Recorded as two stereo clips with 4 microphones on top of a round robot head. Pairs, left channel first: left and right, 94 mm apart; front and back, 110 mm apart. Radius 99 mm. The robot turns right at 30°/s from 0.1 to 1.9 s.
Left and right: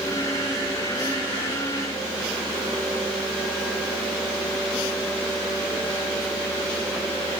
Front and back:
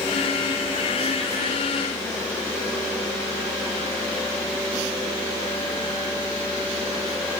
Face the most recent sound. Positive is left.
No sound to turn to.